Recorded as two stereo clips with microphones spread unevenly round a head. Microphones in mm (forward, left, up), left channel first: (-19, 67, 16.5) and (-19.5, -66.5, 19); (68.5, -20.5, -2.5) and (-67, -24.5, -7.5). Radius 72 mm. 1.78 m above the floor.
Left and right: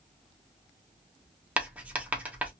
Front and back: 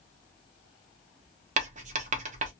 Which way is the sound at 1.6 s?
165° right.